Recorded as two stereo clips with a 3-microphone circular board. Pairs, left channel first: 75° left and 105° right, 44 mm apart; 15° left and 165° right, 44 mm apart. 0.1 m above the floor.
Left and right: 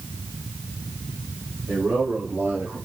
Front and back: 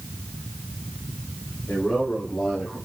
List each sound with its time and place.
1.7 s a man speaking: 50° right, 5.5 m; by 2.8 s 45° right, 4.5 m